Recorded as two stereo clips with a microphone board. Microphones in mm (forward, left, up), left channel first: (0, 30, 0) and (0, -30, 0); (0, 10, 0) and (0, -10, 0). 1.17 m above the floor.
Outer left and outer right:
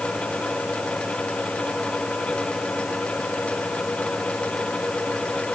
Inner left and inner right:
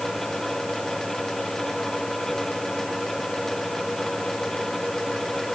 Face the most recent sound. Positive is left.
No sound to turn to.